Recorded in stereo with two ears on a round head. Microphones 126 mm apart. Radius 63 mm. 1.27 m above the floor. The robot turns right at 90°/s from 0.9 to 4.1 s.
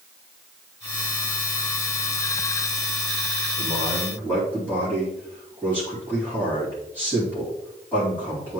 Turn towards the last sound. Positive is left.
turn(degrees=15)